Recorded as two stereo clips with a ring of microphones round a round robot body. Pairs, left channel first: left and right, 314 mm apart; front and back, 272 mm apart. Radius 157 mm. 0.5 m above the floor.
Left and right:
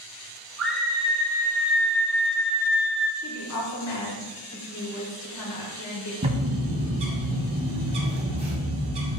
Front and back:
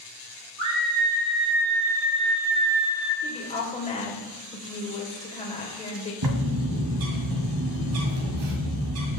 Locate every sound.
0.6 s a scream: straight behind, 4.5 m; by 3.1 s 155° left, 1.8 m
3.2 s a woman speaking: 65° left, 2 m
6.2 s a bird: 160° right, 1.8 m